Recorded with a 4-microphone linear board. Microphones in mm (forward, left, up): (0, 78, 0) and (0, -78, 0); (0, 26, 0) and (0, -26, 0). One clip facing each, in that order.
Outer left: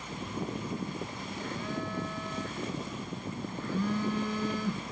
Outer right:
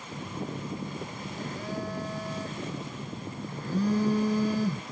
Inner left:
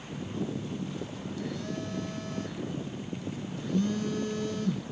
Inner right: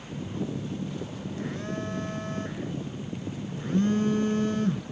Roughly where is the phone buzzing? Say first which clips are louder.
Even, inner right 1 dB; right.